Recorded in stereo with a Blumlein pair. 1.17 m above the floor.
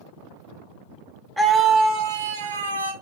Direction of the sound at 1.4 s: 5° right.